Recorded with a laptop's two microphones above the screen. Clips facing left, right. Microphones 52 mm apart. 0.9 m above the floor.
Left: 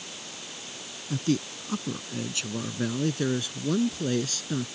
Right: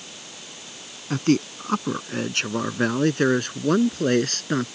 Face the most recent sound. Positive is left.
turn(degrees=-55)  # may be behind; listen again after turning